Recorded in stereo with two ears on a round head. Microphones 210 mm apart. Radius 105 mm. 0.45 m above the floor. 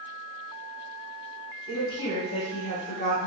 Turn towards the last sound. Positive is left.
turn(degrees=30)  # may be behind; listen again after turning